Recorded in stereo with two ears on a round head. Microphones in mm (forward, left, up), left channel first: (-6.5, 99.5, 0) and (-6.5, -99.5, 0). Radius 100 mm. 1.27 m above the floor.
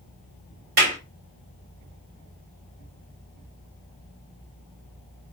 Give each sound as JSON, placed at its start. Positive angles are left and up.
{"t": 0.8, "sound": "a clap", "side_deg": -45, "distance_m": 2.5}